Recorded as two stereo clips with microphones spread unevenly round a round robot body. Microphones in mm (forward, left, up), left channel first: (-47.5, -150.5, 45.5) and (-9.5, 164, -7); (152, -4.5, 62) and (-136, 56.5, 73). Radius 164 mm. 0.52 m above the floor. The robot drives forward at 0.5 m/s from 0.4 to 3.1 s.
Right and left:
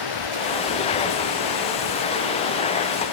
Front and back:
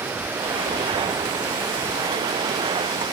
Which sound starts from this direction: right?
Running water, at 0.0 s.